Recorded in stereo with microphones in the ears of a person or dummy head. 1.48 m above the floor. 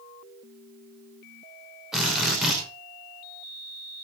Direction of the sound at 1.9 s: Centre (ahead or behind).